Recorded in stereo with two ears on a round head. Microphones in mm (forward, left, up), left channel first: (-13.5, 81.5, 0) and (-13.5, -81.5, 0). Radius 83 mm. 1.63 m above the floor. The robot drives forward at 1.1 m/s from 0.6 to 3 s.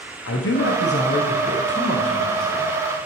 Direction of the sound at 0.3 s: 80° left.